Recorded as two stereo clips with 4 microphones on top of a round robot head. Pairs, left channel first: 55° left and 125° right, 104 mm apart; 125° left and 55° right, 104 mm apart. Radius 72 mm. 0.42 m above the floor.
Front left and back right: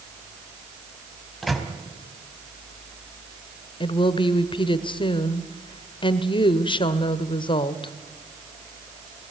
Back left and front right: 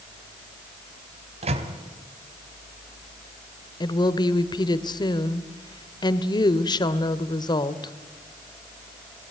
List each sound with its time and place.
1.4 s a microwave: 35° right, 2.5 m
3.8 s a woman speaking: 85° left, 1.4 m